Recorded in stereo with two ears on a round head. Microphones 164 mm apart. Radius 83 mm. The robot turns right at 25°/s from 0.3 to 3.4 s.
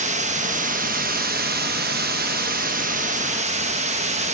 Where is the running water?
125° right, 1.0 m; by 4.3 s 50° right, 1.0 m.